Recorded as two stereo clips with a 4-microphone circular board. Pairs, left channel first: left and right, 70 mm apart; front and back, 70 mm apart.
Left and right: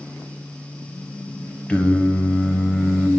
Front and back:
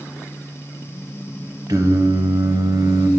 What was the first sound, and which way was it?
Singing, 160° left.